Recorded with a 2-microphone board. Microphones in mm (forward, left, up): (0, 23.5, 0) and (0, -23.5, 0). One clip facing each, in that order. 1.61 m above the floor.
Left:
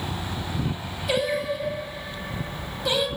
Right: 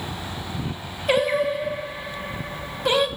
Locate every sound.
1.1 s singing: 40° right (ahead or behind), 0.7 m